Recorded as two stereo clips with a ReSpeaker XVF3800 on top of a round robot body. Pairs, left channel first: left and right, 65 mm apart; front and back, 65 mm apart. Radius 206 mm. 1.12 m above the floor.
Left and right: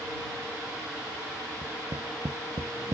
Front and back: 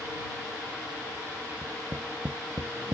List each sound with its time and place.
1.6 s tapping: 130° right